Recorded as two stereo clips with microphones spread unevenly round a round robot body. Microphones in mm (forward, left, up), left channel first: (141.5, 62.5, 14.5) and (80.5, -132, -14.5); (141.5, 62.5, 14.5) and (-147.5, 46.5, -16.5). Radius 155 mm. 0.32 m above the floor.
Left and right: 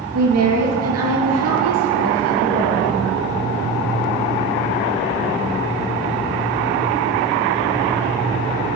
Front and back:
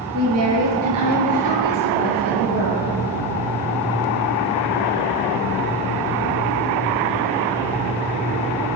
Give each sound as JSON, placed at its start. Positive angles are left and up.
{"t": 0.1, "sound": "a woman speaking", "azimuth_deg": -125, "distance_m": 4.5}